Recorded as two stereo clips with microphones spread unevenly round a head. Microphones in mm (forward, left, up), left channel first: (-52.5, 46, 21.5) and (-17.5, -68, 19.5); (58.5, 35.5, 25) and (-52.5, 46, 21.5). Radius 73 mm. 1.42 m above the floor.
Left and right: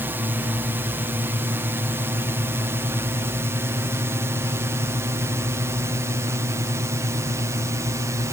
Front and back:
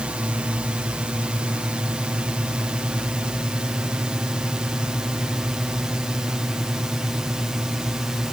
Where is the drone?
120° right; by 8.3 s 105° right.